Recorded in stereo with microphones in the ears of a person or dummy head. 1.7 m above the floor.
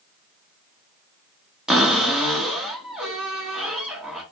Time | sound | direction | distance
1.7 | a cupboard door | centre (ahead or behind) | 0.9 m